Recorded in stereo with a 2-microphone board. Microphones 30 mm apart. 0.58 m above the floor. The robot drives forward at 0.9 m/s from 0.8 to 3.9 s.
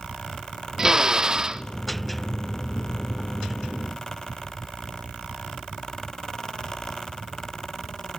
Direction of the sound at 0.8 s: 20° right (ahead or behind).